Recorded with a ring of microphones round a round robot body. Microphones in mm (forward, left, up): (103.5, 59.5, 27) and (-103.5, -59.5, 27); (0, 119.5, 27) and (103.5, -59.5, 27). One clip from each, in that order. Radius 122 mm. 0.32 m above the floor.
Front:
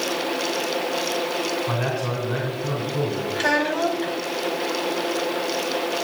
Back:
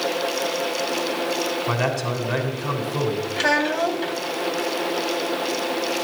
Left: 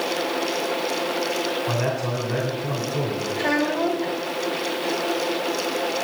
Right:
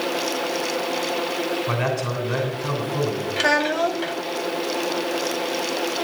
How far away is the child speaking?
About 1.1 m.